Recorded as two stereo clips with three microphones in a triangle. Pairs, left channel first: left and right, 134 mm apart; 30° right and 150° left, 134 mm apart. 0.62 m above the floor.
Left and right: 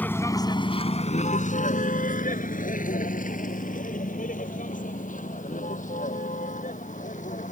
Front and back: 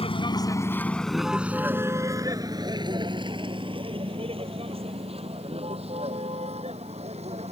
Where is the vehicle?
15° left; by 7.5 s 110° left.